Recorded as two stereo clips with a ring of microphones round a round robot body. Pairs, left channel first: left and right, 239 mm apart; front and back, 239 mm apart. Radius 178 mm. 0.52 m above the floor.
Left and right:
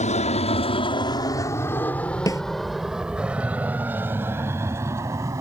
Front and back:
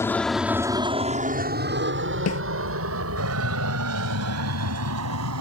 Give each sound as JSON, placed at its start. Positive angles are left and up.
{"t": 0.0, "sound": "an aircraft", "azimuth_deg": 70}
{"t": 2.3, "sound": "a snare drum", "azimuth_deg": 15}